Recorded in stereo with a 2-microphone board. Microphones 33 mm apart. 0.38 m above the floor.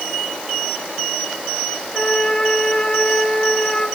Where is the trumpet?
20° left (ahead or behind), 5 m.